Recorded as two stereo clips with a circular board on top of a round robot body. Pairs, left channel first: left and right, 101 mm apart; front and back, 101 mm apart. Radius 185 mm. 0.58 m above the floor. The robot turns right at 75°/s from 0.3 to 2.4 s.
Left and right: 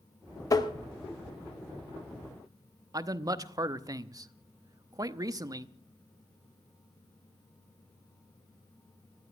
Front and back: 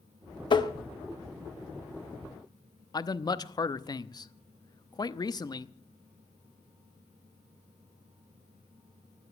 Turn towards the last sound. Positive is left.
turn(degrees=-45)